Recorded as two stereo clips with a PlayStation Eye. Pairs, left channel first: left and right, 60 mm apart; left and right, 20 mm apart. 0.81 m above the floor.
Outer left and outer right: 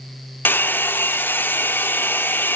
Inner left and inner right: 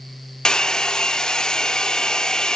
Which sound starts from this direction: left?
A hair dryer, at 0.5 s.